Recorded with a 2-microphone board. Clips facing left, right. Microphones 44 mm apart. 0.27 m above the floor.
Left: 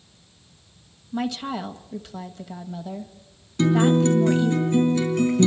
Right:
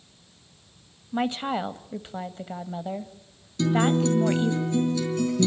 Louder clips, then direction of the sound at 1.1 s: Right 1 dB; 30° right (ahead or behind).